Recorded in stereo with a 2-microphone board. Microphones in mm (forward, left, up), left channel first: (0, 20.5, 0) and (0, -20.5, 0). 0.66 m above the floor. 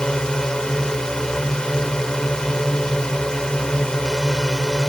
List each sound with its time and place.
0.0 s a drone: 20° left (ahead or behind)